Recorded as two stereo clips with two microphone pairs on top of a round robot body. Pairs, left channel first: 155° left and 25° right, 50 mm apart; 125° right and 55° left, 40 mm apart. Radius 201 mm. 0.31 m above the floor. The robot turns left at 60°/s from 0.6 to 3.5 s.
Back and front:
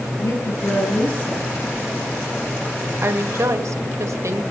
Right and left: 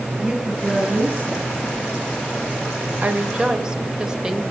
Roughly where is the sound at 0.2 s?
Behind left.